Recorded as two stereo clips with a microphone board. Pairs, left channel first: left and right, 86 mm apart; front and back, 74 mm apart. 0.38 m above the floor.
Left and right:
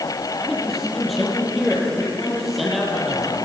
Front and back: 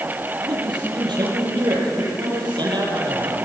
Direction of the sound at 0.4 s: Straight behind.